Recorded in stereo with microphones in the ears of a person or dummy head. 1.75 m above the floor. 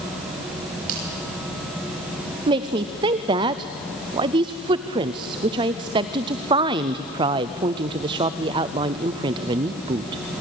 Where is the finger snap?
50° right (ahead or behind), 7 m.